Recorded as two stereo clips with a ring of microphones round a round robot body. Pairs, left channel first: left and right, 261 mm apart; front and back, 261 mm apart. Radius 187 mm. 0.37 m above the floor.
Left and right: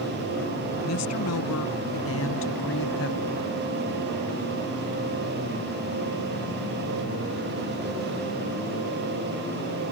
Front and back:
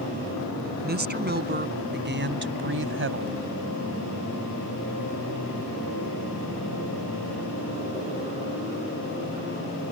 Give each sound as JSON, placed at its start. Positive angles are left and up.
{"t": 0.8, "sound": "a woman speaking", "azimuth_deg": 130}